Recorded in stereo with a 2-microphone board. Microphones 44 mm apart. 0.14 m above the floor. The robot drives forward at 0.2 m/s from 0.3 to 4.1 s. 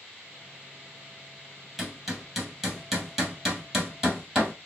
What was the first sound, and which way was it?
Hammering, 5° right (ahead or behind).